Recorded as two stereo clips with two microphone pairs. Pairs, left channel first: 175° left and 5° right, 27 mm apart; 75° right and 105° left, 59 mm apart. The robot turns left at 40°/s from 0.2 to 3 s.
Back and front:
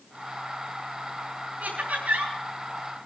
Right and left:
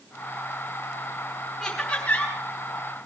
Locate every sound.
1.6 s laughter: 5° left, 4 m; by 2.3 s 25° right, 4 m